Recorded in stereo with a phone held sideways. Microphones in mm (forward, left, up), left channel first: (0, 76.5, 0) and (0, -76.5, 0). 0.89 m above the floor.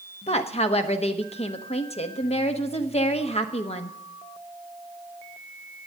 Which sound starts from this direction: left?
A woman speaking, at 0.3 s.